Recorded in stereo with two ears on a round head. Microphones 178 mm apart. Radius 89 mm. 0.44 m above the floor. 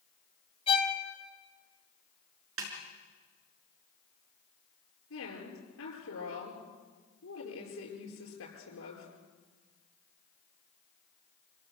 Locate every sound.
0.7 s a violin: 30° left (ahead or behind), 2 m
2.6 s a snare drum: 80° right, 5 m
5.1 s a woman speaking: 75° left (ahead or behind), 8.5 m